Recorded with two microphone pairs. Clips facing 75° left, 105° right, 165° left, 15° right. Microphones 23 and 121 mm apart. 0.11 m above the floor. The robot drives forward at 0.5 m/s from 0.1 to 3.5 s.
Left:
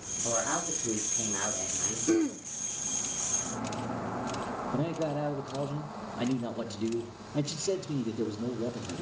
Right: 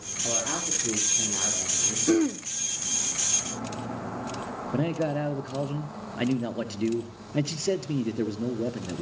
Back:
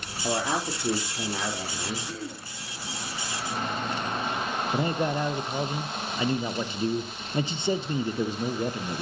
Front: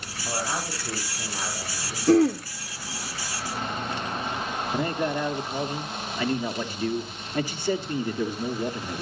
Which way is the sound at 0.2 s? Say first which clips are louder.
Right 1 dB, back 3 dB; 175° left.